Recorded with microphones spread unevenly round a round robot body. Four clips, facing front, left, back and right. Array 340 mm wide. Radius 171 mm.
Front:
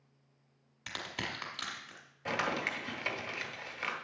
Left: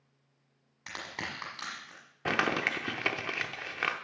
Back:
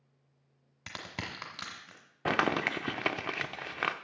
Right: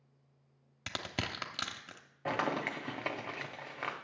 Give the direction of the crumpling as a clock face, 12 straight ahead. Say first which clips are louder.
Left 3 dB, back 5 dB; 7 o'clock.